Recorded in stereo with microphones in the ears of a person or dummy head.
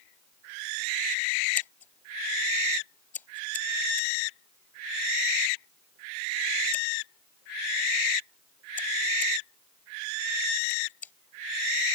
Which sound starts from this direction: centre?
Scissors, at 1.6 s.